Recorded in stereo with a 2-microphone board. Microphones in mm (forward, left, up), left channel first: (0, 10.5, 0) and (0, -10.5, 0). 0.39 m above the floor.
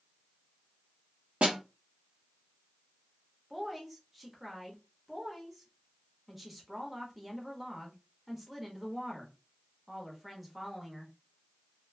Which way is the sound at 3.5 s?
5° right (ahead or behind).